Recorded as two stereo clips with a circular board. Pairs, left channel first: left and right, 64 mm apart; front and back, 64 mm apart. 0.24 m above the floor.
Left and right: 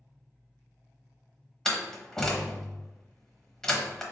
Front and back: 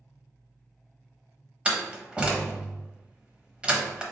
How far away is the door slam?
About 0.8 m.